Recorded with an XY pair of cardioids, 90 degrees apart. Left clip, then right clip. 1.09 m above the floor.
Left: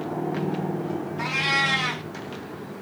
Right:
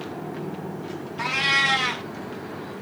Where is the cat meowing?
15° right, 1.2 m.